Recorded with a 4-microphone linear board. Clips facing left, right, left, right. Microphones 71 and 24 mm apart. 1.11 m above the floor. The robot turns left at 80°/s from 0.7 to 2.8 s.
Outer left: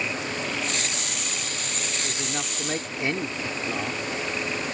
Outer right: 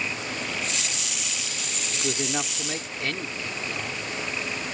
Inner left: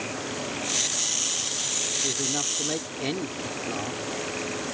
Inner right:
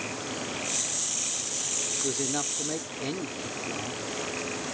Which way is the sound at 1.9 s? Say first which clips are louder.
Outer right 6 dB, inner left 1 dB; 135° right.